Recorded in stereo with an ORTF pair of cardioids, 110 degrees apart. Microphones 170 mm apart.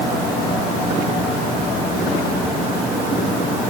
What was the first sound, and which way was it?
Only background noise.